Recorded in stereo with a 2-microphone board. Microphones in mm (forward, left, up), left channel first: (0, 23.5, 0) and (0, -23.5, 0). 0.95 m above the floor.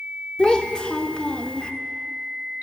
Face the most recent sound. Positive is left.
turn(degrees=20)  # may be behind; listen again after turning